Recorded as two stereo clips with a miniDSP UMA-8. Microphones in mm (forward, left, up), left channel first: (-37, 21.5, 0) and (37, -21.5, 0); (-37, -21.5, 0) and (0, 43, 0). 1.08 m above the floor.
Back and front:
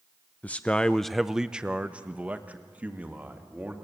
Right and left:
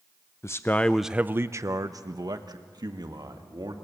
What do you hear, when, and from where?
0.4 s a man speaking: 145° right, 0.7 m; by 3.8 s 40° left, 2.5 m